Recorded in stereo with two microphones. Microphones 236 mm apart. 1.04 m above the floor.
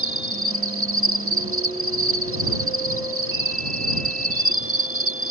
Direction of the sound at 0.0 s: 60° right (ahead or behind).